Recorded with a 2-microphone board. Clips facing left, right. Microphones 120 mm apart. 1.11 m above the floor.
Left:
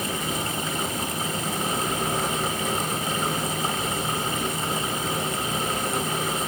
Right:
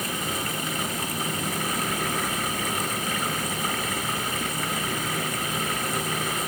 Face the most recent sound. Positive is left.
No sound to turn to.